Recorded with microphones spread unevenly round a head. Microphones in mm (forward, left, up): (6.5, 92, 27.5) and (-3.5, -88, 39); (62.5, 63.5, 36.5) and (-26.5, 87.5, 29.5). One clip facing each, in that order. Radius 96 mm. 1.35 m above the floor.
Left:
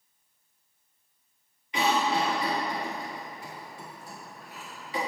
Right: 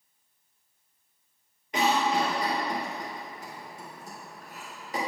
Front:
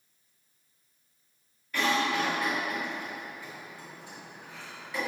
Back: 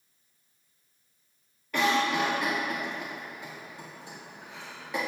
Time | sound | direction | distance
1.7 | a cough | 145° right | 1.6 m